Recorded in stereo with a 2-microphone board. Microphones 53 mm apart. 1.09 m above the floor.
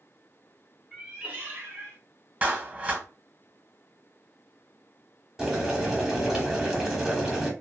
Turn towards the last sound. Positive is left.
turn(degrees=-10)  # may be behind; listen again after turning